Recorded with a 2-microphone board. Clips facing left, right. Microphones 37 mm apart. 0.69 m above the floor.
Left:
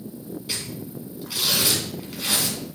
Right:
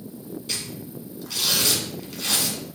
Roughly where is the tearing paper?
Centre.